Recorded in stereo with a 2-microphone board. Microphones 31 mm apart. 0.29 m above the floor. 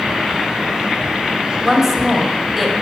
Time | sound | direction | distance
1.6 | a woman speaking | 10° right (ahead or behind) | 1.4 m